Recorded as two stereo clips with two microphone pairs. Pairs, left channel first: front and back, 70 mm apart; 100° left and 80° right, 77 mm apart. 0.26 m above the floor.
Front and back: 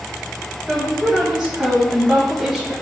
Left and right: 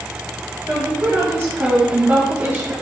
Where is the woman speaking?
110° right, 1.1 m.